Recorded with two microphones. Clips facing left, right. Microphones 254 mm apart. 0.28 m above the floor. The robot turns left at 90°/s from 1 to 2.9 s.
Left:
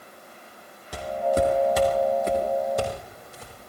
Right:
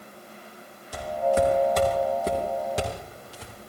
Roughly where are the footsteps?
Left.